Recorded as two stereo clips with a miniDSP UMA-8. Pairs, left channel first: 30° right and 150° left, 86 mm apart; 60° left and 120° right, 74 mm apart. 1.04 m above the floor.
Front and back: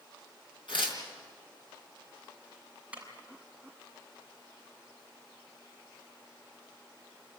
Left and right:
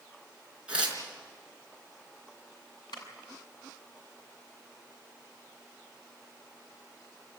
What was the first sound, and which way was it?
Tearing paper, 45° right.